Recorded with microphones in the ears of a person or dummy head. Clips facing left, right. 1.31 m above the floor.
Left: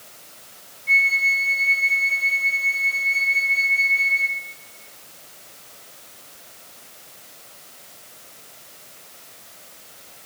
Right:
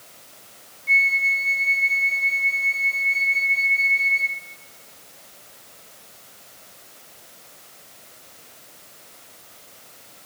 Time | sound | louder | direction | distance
0.9 | a flute | left 1 dB | 5° left (ahead or behind) | 1.0 m